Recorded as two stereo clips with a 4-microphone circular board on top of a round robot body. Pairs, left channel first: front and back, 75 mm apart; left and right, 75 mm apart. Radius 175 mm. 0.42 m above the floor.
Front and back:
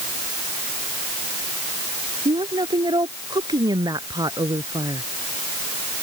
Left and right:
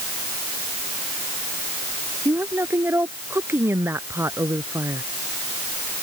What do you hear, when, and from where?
2.2 s a woman speaking: 155° right; by 5.0 s 140° right